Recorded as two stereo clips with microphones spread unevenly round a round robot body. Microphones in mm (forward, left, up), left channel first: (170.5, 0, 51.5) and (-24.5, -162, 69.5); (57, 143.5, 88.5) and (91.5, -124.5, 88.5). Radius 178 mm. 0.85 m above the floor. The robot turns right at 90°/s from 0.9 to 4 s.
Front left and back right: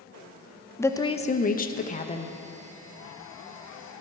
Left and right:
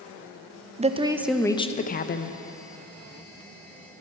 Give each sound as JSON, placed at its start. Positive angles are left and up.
{"t": 0.8, "sound": "a woman speaking", "azimuth_deg": -30, "distance_m": 0.7}